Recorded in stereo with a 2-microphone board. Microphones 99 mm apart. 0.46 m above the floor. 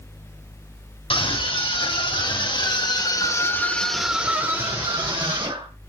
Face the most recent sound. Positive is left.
turn(degrees=-50)  # may be behind; listen again after turning